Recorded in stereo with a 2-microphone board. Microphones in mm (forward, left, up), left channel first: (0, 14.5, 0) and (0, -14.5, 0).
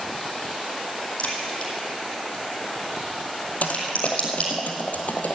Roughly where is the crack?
Left.